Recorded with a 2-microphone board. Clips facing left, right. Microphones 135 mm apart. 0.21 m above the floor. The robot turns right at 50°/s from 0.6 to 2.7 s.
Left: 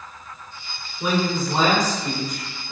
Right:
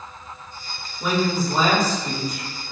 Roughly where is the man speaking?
Ahead.